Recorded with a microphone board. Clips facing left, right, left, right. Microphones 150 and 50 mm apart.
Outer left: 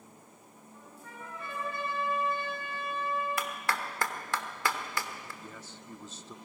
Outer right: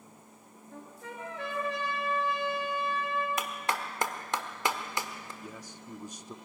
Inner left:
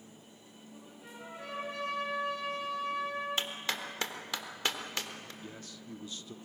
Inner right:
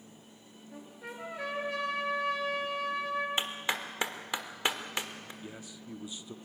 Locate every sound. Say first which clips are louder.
0.7 s a trumpet: outer right 6 dB, inner right 6 dB; 85° right, 3.5 m
3.4 s a clap: outer right 1 dB, inner right 2 dB; 20° right (ahead or behind), 1.4 m
5.4 s a man speaking: outer right 2 dB, inner right 1 dB; 15° right (ahead or behind), 0.6 m